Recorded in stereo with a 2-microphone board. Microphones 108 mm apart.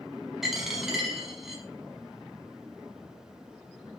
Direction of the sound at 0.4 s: 5° right (ahead or behind).